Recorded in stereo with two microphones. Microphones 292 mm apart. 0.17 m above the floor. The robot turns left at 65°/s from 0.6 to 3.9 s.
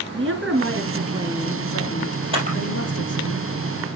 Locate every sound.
0.1 s a woman speaking: 120° right, 2.5 m; by 3.3 s 60° left, 2.5 m
2.3 s a camera shutter: 20° right (ahead or behind), 3.5 m; by 2.6 s 35° right (ahead or behind), 3.5 m